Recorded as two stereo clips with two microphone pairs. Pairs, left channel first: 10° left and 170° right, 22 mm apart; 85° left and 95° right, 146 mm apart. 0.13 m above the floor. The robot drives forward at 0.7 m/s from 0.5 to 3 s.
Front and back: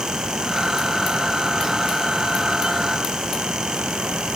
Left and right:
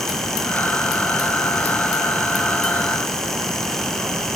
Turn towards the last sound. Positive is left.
No sound to turn to.